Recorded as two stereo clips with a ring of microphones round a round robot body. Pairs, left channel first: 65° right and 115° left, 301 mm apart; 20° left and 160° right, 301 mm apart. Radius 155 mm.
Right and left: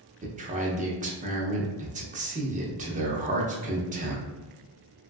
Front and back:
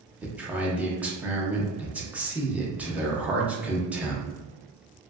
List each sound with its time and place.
0.2 s a man speaking: 125° left, 0.7 m